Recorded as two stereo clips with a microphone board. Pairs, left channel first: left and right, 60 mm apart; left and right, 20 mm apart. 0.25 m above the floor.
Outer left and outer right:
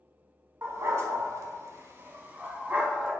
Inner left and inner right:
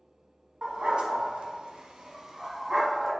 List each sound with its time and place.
0.6 s a dog barking: 50° right (ahead or behind), 0.8 m; by 3.1 s 15° right (ahead or behind), 1.0 m